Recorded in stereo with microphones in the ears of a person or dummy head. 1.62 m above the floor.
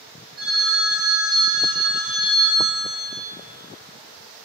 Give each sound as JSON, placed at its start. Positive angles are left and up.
{"t": 0.4, "sound": "a phone ringing", "side_deg": -15, "distance_m": 0.7}